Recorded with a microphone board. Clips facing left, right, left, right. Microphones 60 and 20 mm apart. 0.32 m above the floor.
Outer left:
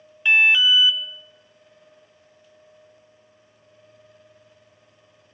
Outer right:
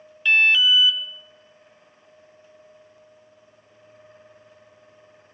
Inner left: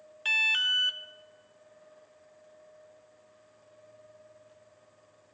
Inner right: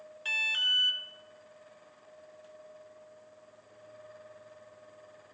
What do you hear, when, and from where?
0.2 s an alarm: 20° left (ahead or behind), 0.6 m